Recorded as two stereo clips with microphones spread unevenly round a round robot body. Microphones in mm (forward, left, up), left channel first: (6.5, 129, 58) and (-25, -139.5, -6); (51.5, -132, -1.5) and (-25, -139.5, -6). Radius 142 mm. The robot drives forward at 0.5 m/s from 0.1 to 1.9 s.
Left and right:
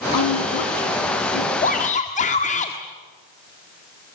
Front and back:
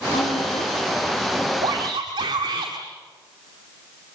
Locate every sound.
0.1 s a woman speaking: 60° left, 9 m
1.6 s a shout: 150° left, 1.6 m